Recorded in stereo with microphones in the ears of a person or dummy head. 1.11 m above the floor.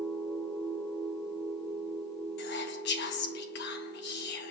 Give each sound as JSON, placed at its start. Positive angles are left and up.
{"t": 0.0, "sound": "a machine running", "side_deg": 5, "distance_m": 2.5}
{"t": 2.4, "sound": "whispering", "side_deg": 55, "distance_m": 1.2}